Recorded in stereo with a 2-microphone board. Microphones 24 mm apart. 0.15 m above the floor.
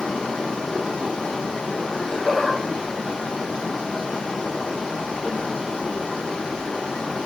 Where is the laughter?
25° left (ahead or behind), 1.8 m.